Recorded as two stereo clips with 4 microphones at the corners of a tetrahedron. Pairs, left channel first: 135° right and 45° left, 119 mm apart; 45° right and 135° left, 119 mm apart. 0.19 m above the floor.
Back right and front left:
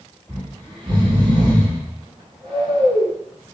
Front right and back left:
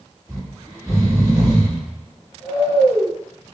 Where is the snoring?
80° left, 1.8 m.